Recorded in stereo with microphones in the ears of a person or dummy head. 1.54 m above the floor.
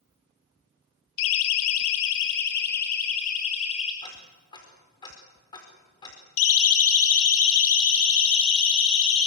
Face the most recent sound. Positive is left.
turn(degrees=75)  # may be behind; listen again after turning